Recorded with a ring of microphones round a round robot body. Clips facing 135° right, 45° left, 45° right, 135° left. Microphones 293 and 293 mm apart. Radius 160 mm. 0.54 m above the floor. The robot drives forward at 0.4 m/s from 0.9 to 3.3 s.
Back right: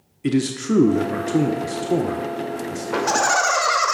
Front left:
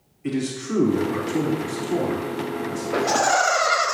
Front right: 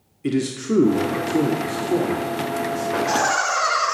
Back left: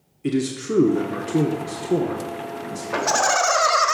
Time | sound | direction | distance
0.2 | a man speaking | 135° right | 1.0 m
2.9 | laughter | 160° left | 1.8 m